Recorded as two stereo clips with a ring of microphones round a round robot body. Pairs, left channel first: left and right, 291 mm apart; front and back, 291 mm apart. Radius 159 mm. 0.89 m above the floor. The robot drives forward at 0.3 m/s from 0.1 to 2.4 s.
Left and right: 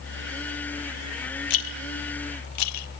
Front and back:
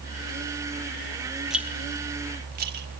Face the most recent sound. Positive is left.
turn(degrees=120)